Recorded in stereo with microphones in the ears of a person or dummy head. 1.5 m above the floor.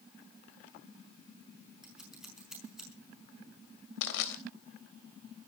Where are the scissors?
5° right (ahead or behind), 5 m.